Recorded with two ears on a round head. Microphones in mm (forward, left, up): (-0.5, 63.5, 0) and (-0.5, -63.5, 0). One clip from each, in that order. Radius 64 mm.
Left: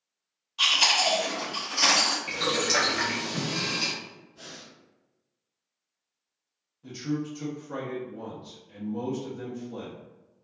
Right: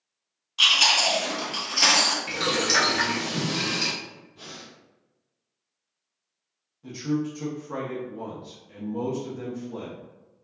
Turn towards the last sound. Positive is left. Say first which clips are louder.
# right 4 dB
turn(degrees=0)  # may be behind; listen again after turning